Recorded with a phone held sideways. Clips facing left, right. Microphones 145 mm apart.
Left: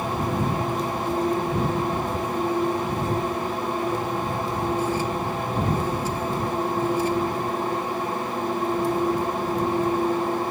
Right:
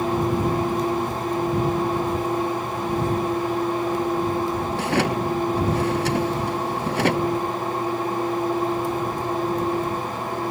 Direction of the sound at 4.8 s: 80° right.